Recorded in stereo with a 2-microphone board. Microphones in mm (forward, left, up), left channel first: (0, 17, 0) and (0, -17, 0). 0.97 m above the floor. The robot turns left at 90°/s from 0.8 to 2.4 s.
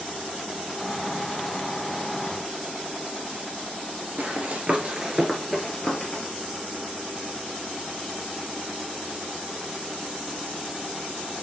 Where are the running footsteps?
50° right (ahead or behind), 1.4 m; by 6.2 s 30° left (ahead or behind), 1.5 m.